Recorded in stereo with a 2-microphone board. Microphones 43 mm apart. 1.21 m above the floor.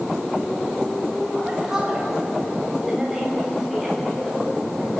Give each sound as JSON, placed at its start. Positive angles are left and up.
{"t": 1.4, "sound": "a woman speaking", "side_deg": -10, "distance_m": 7.5}